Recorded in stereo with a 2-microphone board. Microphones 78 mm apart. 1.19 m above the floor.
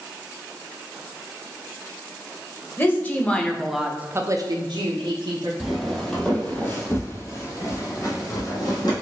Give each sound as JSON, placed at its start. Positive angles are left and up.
{"t": 2.8, "sound": "a woman speaking", "side_deg": 30, "distance_m": 1.1}
{"t": 5.6, "sound": "footsteps", "side_deg": 0, "distance_m": 1.4}